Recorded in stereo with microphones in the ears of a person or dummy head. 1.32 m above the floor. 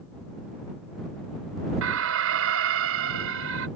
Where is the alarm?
70° right (ahead or behind).